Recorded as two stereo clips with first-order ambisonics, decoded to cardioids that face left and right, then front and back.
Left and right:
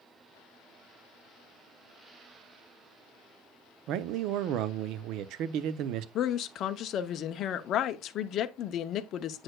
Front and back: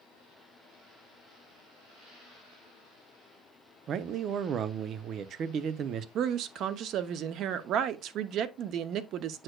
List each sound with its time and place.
3.9 s a man speaking: 125° right, 0.6 m
6.2 s a woman speaking: 135° left, 0.6 m